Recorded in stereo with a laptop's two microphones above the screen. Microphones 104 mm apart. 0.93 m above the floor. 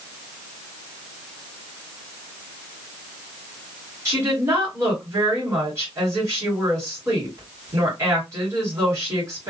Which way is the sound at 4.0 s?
25° right (ahead or behind).